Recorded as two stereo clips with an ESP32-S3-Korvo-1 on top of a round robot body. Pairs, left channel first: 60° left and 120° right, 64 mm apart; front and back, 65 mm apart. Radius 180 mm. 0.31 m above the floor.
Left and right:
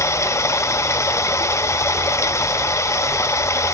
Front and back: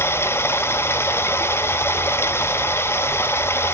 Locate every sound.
0.0 s running water: 35° left, 0.9 m